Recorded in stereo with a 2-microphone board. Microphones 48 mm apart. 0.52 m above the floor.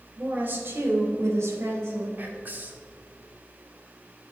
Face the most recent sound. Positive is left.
turn(degrees=-40)  # may be behind; listen again after turning